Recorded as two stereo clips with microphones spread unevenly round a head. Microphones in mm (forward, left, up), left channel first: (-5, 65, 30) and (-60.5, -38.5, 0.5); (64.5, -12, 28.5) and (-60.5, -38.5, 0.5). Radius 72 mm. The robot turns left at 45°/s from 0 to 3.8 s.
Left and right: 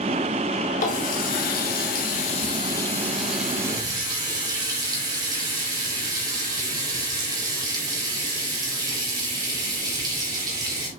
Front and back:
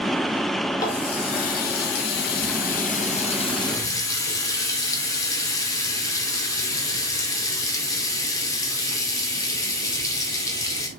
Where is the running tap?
80° left, 2 m; by 10.9 s 55° right, 2 m.